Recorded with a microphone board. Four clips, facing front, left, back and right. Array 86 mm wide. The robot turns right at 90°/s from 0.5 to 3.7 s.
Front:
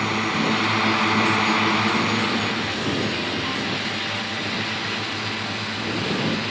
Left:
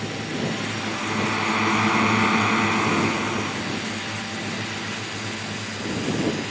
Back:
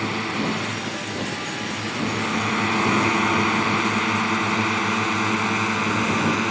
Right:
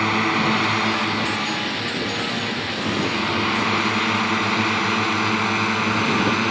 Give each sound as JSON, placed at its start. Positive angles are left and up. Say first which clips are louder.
{"t": 0.0, "sound": "a drone", "louder": "right 8 dB, front 2 dB", "azimuth_deg": -75}